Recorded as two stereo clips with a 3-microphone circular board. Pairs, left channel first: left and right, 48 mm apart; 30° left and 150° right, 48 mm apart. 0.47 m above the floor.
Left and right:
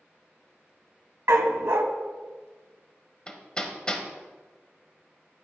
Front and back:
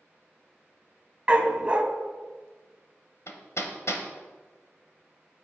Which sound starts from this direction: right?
A dog barking, at 1.3 s.